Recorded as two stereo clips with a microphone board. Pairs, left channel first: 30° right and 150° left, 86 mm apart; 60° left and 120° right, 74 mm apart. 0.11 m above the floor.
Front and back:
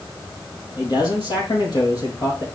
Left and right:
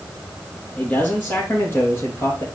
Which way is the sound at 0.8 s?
5° right.